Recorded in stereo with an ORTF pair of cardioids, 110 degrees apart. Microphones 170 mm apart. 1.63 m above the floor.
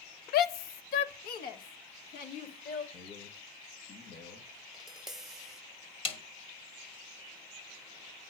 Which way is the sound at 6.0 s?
35° left.